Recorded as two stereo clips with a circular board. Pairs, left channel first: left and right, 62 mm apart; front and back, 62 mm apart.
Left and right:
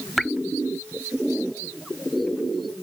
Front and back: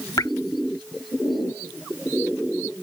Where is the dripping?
5° left.